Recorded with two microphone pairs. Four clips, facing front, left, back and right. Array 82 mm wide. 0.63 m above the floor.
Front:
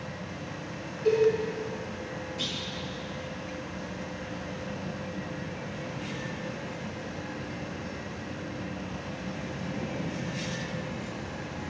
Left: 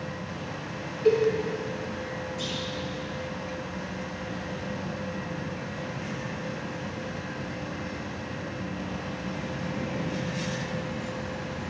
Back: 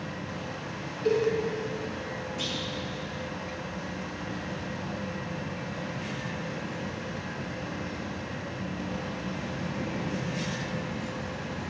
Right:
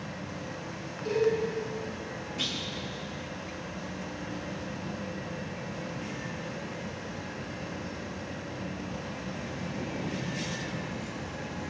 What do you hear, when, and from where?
1.1 s a cowbell: 95° left, 6.5 m
2.4 s a clunk: 95° right, 6 m